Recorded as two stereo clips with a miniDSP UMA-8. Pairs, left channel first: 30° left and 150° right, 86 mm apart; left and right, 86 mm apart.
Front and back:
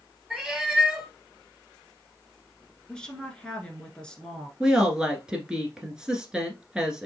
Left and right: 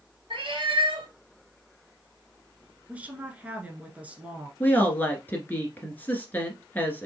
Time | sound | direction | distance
0.3 | a cat meowing | 65° right | 2 m
2.9 | a woman speaking | 40° right | 1.2 m
4.6 | a woman speaking | 135° left | 1.2 m